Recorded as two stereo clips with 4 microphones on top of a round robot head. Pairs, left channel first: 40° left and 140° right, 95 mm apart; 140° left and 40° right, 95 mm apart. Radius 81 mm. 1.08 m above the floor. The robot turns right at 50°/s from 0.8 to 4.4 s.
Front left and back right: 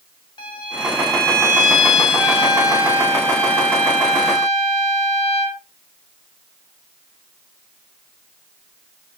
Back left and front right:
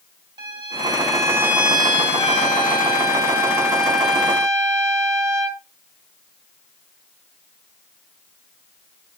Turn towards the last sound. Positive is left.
turn(degrees=-150)